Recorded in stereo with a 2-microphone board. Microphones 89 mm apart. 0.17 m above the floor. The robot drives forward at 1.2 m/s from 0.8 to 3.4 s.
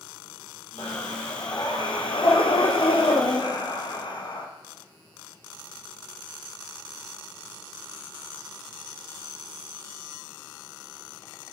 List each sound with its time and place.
0.8 s breathing: 45° left (ahead or behind), 3 m; by 4.5 s 60° left (ahead or behind), 2.5 m